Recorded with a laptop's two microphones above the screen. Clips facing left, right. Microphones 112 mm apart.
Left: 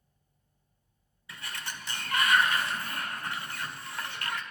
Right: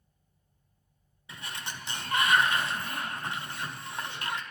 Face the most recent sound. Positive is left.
turn(degrees=-20)  # may be behind; listen again after turning